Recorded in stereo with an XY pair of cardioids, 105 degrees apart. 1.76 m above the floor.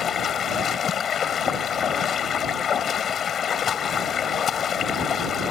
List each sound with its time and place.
0.0 s running water: 50° left